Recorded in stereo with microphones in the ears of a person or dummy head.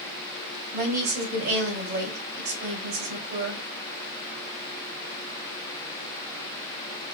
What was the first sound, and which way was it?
A woman speaking, 60° right (ahead or behind).